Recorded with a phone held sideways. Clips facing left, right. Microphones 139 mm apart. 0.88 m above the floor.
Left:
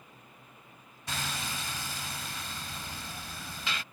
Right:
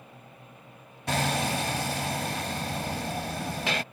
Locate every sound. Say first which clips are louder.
0.0 s a fan: right 6 dB; 75° right (ahead or behind)
1.1 s hammering: right 11 dB; 70° right (ahead or behind)